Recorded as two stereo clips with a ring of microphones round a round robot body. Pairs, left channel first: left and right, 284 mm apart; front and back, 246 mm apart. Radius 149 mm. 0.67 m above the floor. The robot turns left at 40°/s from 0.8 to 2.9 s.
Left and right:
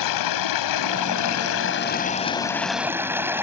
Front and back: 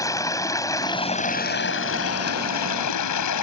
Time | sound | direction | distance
0.0 | running water | 75° left | ?